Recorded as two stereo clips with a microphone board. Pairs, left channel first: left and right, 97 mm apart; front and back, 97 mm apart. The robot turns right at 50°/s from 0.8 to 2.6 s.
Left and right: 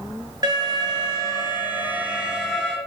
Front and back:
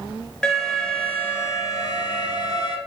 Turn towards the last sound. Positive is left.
turn(degrees=10)